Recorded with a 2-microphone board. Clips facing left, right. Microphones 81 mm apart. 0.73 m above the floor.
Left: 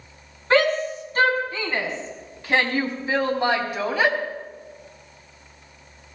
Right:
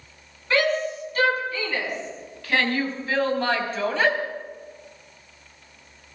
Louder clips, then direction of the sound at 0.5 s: Left 3 dB; 35° left (ahead or behind).